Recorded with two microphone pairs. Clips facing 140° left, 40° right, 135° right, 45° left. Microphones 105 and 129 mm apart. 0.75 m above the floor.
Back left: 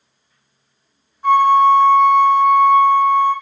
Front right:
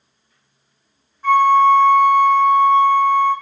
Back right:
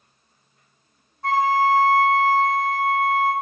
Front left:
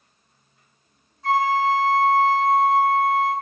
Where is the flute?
160° right, 2 m.